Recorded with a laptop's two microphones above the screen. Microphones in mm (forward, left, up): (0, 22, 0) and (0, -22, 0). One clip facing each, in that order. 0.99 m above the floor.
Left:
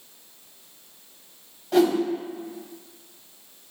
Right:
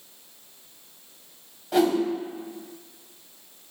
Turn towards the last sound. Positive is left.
turn(degrees=-5)  # may be behind; listen again after turning